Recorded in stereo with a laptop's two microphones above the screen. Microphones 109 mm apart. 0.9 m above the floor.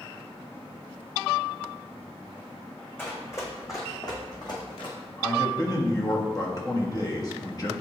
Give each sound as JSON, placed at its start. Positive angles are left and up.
{"t": 3.0, "sound": "running footsteps", "side_deg": 20, "distance_m": 2.5}
{"t": 5.2, "sound": "a man speaking", "side_deg": 35, "distance_m": 1.5}